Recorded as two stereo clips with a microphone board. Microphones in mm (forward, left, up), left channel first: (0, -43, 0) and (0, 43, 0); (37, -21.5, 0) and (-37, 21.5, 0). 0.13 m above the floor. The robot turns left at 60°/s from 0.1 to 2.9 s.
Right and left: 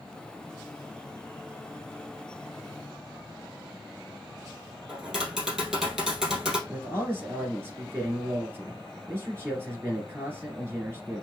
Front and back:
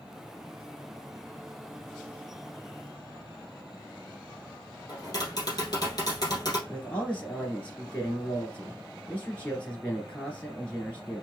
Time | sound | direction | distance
4.9 | tapping | 10° left | 2.5 m
6.7 | a man speaking | 35° left | 1.8 m